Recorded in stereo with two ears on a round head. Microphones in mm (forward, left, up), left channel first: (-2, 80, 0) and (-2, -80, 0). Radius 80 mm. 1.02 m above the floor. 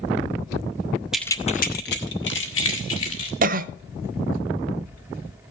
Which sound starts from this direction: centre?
Keys jangling, at 1.1 s.